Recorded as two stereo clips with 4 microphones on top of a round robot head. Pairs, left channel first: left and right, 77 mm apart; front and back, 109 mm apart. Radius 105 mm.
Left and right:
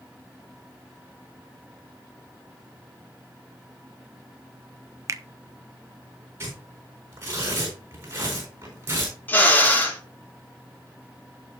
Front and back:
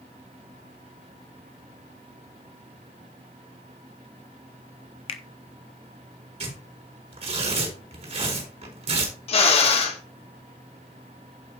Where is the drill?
25° left, 2.5 m.